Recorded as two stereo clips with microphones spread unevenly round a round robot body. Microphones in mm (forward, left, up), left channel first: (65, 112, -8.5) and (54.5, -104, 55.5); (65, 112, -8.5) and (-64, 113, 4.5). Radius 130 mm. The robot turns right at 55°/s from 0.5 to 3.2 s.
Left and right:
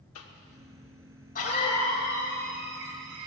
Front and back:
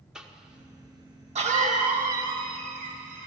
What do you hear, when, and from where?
0.1 s a cough: 95° left, 1.7 m; by 3.3 s 115° right, 1.7 m